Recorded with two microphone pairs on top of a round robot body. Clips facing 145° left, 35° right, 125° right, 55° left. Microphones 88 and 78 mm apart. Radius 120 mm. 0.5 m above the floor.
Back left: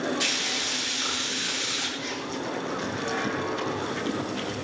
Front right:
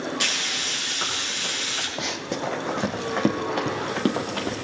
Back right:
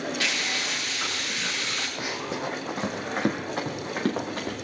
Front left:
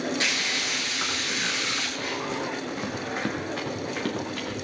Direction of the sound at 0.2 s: 10° right.